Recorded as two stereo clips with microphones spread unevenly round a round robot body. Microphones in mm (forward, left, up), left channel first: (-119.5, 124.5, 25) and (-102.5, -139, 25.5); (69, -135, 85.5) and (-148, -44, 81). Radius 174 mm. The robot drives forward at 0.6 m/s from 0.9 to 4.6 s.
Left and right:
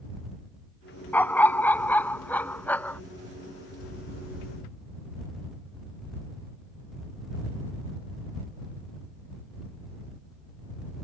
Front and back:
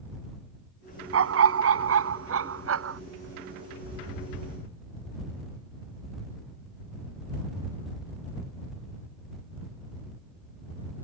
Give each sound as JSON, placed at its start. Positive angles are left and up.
{"t": 1.1, "sound": "a dog barking", "azimuth_deg": 175}